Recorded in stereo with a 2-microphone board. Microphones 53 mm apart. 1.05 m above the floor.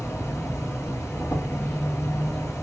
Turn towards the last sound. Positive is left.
turn(degrees=50)  # may be behind; listen again after turning